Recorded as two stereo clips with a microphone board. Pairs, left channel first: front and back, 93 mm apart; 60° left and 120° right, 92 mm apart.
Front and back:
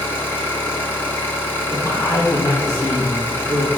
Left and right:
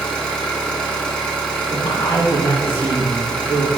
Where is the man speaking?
50° left, 1.6 m.